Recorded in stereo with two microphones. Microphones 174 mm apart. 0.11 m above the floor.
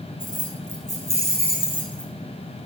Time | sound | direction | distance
0.2 | keys jangling | 50° left (ahead or behind) | 5.5 m